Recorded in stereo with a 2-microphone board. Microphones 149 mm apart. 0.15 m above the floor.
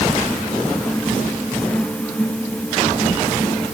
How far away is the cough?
I don't hear a cough.